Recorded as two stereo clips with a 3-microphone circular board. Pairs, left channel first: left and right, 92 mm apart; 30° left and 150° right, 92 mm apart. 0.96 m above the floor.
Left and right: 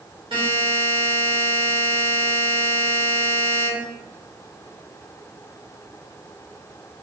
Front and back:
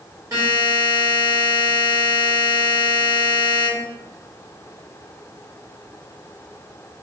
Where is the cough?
I don't hear a cough.